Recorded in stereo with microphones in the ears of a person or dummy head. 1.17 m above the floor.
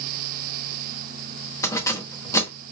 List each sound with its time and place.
1.6 s keys jangling: 20° left (ahead or behind), 0.9 m